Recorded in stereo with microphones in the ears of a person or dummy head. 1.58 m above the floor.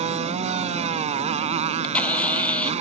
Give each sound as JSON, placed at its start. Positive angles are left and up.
{"t": 0.0, "sound": "a motorcycle", "side_deg": -40}
{"t": 1.6, "sound": "a camera shutter", "side_deg": 10}